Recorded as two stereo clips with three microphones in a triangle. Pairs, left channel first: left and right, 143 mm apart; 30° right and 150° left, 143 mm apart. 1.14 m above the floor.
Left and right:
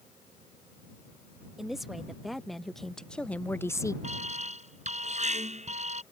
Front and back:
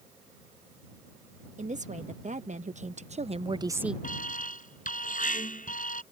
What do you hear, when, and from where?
1.6 s a woman speaking: straight behind; by 3.9 s 70° left
4.0 s an alarm: 55° right